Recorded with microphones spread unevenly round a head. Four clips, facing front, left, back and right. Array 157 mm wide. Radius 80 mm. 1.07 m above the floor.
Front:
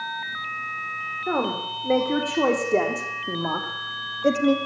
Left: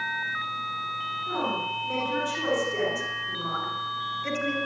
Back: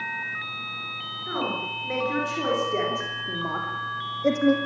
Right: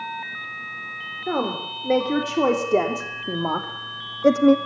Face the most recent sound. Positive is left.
turn(degrees=-90)